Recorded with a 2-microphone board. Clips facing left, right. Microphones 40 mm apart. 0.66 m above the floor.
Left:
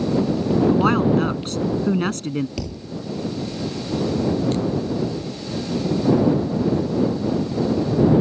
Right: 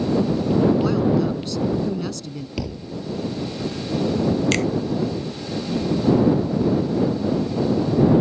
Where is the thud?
10° right (ahead or behind).